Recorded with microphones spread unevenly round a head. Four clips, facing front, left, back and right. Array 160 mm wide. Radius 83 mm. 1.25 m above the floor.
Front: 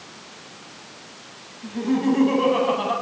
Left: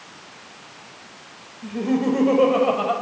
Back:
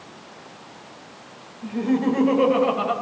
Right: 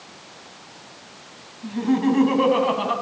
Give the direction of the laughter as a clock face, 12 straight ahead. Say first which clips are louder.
Right 1 dB, even; 7 o'clock.